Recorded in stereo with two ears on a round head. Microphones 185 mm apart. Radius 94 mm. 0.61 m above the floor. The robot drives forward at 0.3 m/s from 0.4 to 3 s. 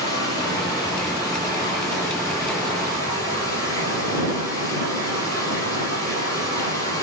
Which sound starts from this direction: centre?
Running water, at 0.0 s.